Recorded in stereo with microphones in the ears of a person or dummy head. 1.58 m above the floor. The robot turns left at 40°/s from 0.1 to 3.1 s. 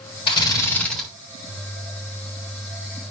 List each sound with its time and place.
0.3 s a drill: 30° left, 6 m; by 1.1 s straight ahead, 6 m